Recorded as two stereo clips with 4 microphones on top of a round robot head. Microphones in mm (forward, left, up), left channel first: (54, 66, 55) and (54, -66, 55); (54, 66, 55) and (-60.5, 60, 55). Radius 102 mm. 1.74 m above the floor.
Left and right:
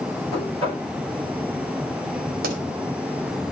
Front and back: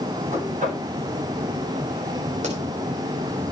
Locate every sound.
0.3 s knocking: 165° left, 10 m
2.4 s a pop: 125° right, 2.5 m